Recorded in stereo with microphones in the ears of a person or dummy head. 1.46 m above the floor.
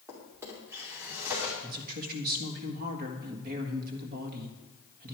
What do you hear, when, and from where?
0.1 s a drawer: 10° right (ahead or behind), 2.5 m
1.6 s a woman speaking: 55° right (ahead or behind), 1.6 m